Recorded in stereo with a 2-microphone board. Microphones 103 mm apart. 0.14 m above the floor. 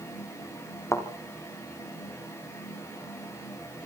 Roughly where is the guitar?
No guitar in this recording.